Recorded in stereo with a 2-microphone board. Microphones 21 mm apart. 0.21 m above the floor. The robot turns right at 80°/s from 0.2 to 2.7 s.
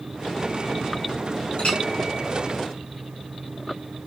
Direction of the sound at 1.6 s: 60° left (ahead or behind).